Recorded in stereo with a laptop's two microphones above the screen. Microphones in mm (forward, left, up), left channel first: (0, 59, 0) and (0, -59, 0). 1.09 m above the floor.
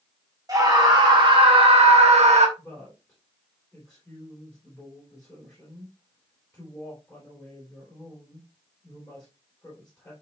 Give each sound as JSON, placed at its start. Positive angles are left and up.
{"t": 0.5, "sound": "a scream", "side_deg": -30, "distance_m": 3.0}
{"t": 2.6, "sound": "a woman speaking", "side_deg": 10, "distance_m": 4.0}